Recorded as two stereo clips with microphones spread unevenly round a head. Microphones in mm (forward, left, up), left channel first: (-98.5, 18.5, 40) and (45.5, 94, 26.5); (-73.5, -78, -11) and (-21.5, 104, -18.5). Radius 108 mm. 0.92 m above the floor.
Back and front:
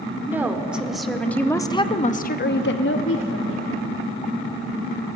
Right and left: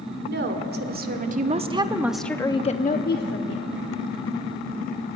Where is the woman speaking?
105° left, 2.5 m; by 3.7 s 130° right, 1.8 m.